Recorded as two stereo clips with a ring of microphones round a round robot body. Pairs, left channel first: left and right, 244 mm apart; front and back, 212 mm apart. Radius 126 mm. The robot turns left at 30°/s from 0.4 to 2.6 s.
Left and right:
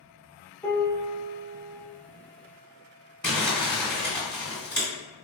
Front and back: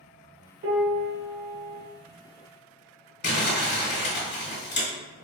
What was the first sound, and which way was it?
A piano, 170° left.